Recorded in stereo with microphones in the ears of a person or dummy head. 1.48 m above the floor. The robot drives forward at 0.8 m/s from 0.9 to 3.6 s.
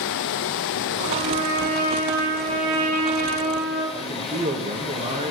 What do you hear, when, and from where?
0.0 s running water: 70° left (ahead or behind), 1.1 m; by 5.3 s 25° left (ahead or behind), 2.5 m
1.0 s a trumpet: 55° right (ahead or behind), 7 m; by 3.8 s 45° right (ahead or behind), 8.5 m
3.9 s a man speaking: 35° right (ahead or behind), 1.6 m